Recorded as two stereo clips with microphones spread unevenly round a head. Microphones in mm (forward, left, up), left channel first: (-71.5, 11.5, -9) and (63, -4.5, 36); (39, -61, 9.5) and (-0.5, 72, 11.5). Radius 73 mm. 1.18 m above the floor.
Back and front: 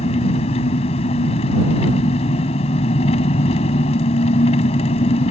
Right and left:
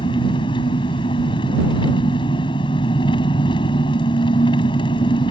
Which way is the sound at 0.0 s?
135° right.